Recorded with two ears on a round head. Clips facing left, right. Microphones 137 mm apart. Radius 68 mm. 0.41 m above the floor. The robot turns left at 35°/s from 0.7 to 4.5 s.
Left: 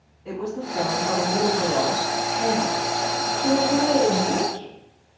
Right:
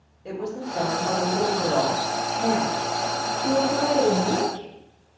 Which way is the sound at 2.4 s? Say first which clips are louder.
Even; 20° left (ahead or behind).